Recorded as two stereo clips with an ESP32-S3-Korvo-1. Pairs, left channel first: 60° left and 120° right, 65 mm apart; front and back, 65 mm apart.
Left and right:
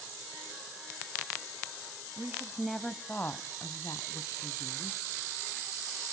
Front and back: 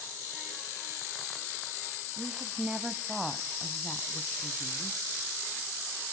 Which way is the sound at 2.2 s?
150° right.